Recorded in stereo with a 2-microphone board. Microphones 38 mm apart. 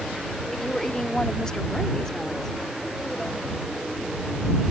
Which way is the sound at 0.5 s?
10° left (ahead or behind).